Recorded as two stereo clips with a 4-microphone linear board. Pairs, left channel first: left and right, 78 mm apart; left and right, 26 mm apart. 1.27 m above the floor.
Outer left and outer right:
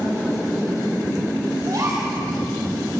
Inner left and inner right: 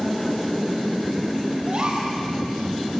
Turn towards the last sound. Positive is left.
turn(degrees=-45)  # may be behind; listen again after turning